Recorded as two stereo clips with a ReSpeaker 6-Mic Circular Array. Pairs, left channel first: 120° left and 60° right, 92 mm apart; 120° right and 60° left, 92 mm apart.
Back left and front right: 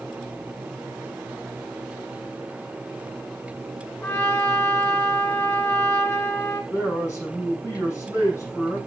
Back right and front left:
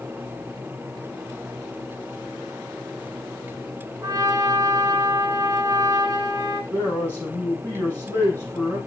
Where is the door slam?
I don't hear a door slam.